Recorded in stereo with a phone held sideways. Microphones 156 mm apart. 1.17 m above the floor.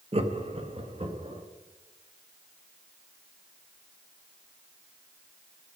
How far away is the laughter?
About 1.0 m.